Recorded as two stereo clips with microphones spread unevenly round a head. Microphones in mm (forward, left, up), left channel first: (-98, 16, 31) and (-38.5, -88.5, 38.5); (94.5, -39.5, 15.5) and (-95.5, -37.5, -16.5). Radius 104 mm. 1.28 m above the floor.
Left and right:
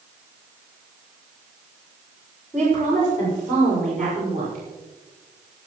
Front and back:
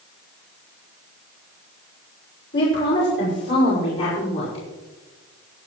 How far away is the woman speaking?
About 6 m.